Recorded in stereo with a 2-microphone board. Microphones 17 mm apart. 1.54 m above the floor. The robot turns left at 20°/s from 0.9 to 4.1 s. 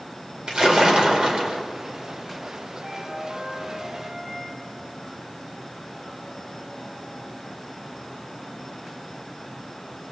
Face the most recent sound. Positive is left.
turn(degrees=-15)  # may be behind; listen again after turning